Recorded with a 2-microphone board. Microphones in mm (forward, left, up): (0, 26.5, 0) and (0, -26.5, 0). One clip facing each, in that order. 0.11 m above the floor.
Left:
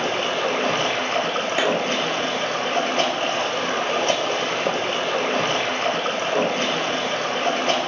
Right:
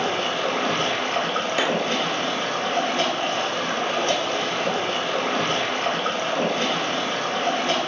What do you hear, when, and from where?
0.0 s running water: 50° left (ahead or behind), 0.8 m
1.6 s a clap: 20° left (ahead or behind), 1.3 m